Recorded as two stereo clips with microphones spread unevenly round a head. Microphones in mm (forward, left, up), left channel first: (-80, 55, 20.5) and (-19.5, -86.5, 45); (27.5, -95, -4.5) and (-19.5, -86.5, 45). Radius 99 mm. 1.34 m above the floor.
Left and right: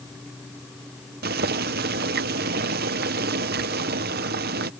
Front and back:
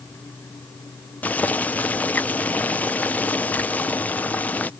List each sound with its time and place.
1.2 s boiling: 35° right